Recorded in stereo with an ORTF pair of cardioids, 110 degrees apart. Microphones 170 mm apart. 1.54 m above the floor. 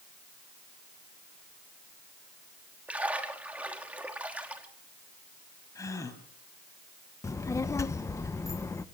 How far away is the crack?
I don't hear a crack.